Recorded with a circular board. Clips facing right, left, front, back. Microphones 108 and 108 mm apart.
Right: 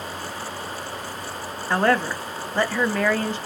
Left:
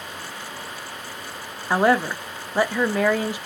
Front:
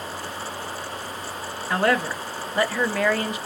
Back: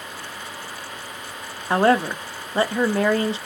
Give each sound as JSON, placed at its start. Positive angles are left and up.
{"t": 1.7, "sound": "a woman speaking", "azimuth_deg": 155, "distance_m": 0.5}